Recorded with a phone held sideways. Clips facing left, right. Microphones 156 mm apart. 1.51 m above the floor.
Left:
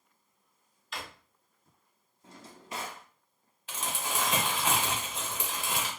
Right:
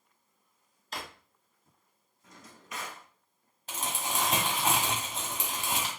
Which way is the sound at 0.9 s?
40° right (ahead or behind).